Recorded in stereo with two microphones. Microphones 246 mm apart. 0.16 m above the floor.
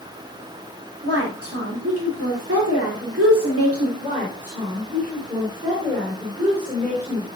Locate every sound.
1.0 s a woman speaking: 70° right (ahead or behind), 3.5 m
4.0 s a woman speaking: 30° right (ahead or behind), 3.5 m